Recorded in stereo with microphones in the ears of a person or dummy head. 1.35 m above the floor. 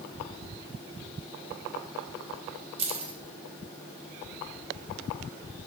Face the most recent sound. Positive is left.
turn(degrees=-30)  # may be behind; listen again after turning